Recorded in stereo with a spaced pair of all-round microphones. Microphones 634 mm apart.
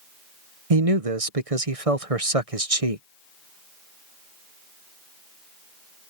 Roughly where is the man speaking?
Right.